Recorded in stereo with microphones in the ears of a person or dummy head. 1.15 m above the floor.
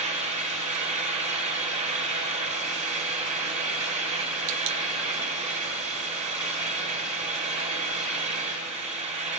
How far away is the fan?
About 1.1 m.